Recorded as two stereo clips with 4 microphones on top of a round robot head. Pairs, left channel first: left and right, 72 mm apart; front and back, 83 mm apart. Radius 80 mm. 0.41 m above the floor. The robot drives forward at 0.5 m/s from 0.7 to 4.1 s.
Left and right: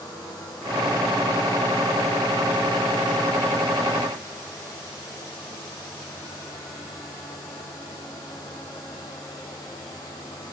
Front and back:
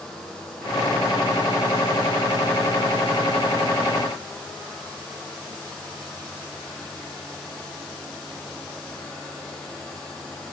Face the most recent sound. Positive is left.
No sound to turn to.